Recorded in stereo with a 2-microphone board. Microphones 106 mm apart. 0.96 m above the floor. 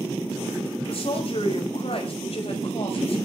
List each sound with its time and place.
0.9 s a woman speaking: 60° left (ahead or behind), 5 m